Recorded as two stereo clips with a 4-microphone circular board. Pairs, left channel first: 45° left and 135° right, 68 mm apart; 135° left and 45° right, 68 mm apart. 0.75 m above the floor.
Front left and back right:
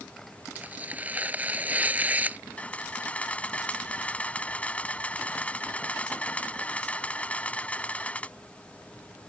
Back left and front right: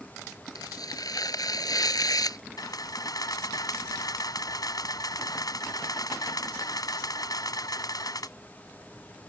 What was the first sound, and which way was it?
Tearing paper, 160° left.